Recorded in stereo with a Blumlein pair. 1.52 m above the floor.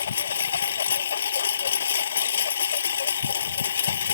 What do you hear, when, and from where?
0.0 s a lawn mower: 65° left